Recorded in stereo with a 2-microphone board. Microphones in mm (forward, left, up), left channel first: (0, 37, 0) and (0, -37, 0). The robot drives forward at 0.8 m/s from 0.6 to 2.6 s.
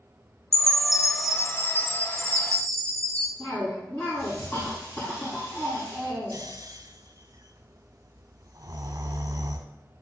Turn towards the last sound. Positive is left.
turn(degrees=-50)  # may be behind; listen again after turning